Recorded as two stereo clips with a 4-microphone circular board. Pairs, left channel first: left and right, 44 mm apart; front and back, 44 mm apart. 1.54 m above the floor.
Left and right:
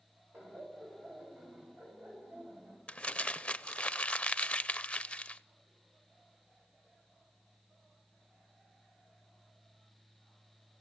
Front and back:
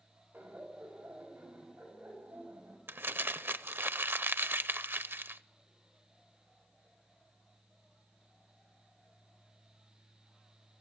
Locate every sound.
0.3 s laughter: 135° right, 6.5 m; by 2.8 s 140° right, 8 m
2.9 s crumpling: 150° left, 0.6 m